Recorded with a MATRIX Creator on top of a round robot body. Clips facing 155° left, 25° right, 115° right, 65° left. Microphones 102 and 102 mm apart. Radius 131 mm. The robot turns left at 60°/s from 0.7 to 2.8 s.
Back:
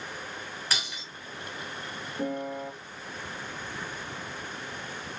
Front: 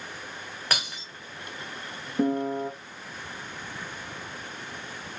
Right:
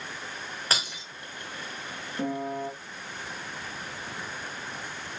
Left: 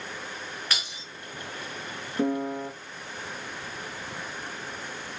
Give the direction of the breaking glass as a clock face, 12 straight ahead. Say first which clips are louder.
Front 5 dB, right 4 dB; 2 o'clock.